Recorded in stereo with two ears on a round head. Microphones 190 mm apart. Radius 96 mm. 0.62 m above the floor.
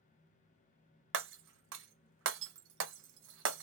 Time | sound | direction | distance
1.1 | breaking glass | 60° right (ahead or behind) | 0.7 m